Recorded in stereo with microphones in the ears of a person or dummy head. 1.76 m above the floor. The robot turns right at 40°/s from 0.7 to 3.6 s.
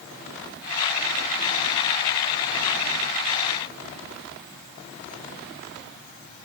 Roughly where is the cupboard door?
I don't hear a cupboard door.